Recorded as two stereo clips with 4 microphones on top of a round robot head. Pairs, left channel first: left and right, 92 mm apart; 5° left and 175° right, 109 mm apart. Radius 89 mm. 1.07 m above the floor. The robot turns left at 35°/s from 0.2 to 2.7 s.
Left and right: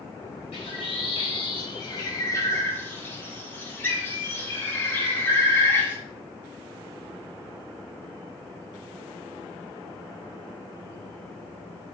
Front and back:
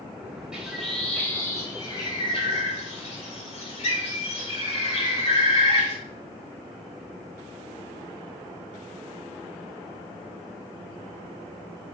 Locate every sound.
0.5 s a bird: 100° left, 4 m; by 6.0 s 20° left, 4 m